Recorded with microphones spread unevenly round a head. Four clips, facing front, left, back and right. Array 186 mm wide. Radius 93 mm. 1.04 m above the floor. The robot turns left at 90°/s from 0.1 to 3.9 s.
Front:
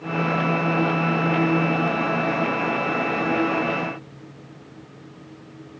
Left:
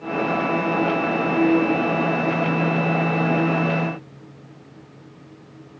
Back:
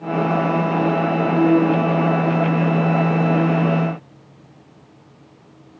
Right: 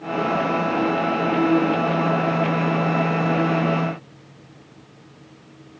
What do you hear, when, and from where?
Only background noise.